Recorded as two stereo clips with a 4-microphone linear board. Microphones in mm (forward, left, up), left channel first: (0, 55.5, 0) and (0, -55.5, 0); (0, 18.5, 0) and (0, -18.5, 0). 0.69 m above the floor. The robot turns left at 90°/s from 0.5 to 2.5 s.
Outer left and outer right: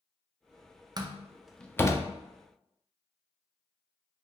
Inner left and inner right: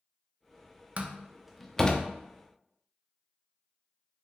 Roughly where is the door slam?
Right.